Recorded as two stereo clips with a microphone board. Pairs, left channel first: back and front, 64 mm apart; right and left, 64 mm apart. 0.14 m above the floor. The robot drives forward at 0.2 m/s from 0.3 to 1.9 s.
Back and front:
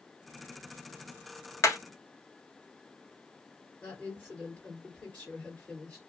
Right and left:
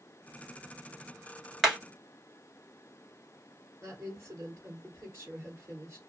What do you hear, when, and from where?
1.6 s hammering: 175° left, 0.9 m
3.8 s a woman speaking: 120° left, 1.9 m